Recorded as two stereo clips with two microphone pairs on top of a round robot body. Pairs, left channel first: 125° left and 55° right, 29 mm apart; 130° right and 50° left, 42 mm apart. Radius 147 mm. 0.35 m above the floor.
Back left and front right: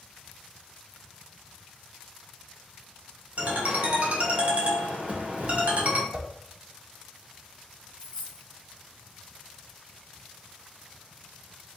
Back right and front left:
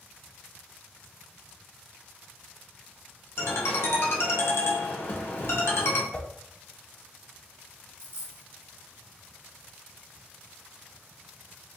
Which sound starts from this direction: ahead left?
A dropped coin, at 8.0 s.